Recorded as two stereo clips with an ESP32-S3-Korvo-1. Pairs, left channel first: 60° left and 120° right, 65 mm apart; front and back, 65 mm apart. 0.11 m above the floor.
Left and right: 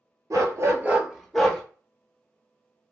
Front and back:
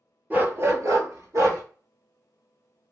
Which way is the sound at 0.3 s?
125° right.